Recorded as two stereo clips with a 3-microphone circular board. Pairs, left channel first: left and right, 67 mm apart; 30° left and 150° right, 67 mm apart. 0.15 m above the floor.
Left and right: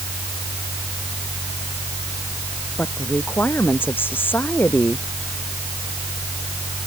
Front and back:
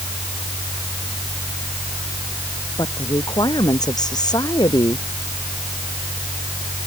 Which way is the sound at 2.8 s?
35° left.